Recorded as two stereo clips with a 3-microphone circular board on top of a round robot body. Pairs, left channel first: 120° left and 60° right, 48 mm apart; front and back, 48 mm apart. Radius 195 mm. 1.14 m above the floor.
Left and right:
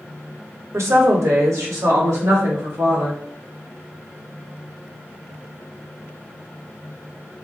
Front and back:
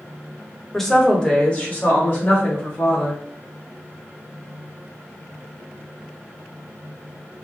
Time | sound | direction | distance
0.7 | a woman speaking | 85° right | 1.3 m